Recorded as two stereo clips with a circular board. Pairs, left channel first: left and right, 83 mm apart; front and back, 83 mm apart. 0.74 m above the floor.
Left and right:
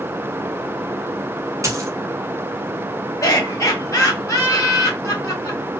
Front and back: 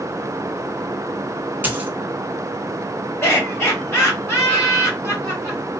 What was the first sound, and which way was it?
A dropped coin, 120° right.